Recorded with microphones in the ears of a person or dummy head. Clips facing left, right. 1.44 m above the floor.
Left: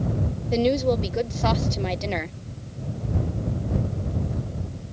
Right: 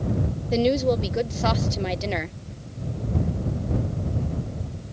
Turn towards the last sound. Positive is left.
turn(degrees=-5)  # may be behind; listen again after turning